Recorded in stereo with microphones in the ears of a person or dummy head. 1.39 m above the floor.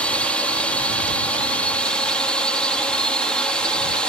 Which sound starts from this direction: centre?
A drone, at 0.0 s.